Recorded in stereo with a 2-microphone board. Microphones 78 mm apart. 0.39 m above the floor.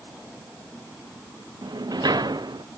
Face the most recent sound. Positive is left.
turn(degrees=-65)  # may be behind; listen again after turning